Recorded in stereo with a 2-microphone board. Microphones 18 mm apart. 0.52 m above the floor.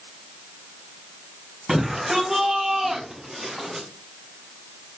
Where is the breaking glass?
I don't hear breaking glass.